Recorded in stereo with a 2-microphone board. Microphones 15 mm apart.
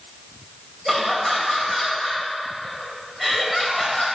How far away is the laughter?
About 2.5 m.